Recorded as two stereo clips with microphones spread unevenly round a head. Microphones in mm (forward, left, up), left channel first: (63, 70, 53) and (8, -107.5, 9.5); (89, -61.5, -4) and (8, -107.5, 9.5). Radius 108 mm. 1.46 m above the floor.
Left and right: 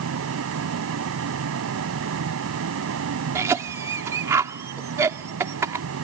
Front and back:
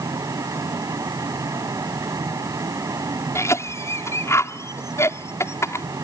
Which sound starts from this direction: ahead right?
A cough, at 3.4 s.